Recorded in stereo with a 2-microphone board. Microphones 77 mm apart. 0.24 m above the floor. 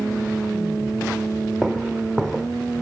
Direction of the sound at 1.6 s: Centre (ahead or behind).